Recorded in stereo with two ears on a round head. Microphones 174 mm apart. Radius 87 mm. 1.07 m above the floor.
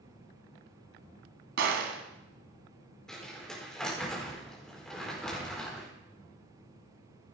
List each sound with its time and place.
1.6 s a gunshot: 65° right (ahead or behind), 1.9 m
3.1 s crumpling: 5° left (ahead or behind), 4 m